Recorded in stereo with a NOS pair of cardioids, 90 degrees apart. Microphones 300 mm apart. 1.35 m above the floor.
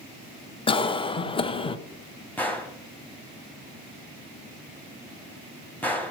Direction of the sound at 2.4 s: 5° left.